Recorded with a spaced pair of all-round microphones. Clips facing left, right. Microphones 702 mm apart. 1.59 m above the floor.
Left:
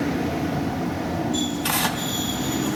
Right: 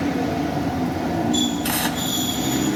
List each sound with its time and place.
1.6 s tearing paper: 35° left (ahead or behind), 2.0 m